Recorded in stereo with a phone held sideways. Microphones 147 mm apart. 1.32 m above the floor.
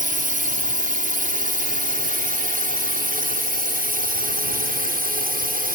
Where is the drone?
65° right (ahead or behind); by 5.8 s 75° right (ahead or behind).